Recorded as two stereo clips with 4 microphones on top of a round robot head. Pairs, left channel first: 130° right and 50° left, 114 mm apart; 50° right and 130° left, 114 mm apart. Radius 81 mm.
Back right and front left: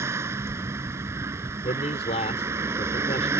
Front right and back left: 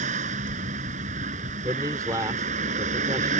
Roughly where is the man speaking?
Behind.